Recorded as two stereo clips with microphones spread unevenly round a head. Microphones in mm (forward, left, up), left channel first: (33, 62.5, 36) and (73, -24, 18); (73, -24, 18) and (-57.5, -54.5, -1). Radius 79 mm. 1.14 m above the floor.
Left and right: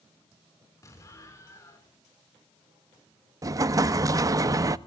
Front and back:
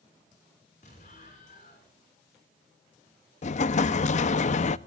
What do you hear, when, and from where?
0.8 s an explosion: 60° left, 6 m
3.4 s an explosion: 5° right, 0.7 m